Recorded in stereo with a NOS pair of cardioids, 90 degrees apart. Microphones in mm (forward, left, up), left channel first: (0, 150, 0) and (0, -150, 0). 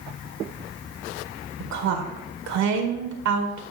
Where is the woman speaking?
70° right, 1.8 m.